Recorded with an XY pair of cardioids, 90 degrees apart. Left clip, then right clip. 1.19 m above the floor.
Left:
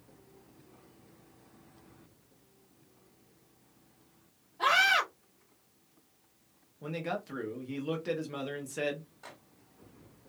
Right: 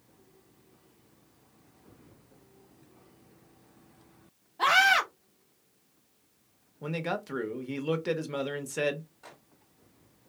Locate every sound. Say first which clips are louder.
4.6 s a scream: right 3 dB; 60° right, 0.9 m
6.8 s a man speaking: right 3 dB; 45° right, 0.9 m
9.2 s a microwave: left 1 dB; 25° left, 1.6 m